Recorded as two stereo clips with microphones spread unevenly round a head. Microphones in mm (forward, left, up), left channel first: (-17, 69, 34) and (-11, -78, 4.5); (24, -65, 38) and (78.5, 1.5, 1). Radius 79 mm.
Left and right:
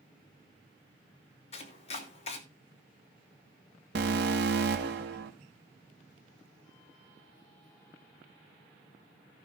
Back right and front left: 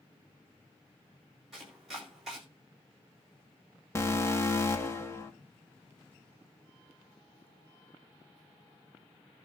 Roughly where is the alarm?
Right.